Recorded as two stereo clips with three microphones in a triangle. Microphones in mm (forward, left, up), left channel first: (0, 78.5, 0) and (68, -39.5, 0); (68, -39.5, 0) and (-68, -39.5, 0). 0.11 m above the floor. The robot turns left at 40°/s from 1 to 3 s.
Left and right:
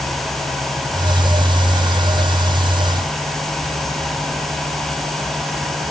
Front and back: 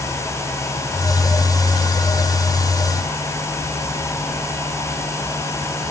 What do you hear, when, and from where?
Only background noise.